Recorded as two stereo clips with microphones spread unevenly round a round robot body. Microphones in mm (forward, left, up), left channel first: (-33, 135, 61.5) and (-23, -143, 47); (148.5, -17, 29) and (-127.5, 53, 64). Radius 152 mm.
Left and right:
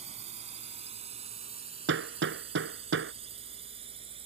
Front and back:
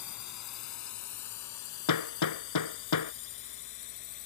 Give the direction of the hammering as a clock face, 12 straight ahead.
1 o'clock.